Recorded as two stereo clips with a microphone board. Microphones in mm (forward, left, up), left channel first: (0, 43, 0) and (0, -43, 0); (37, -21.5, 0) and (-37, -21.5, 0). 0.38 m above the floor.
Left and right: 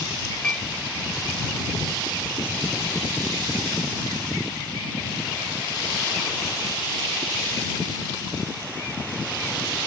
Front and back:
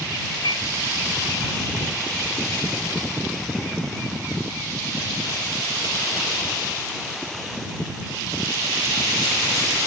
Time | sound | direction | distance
0.4 | a piano | 10° left | ?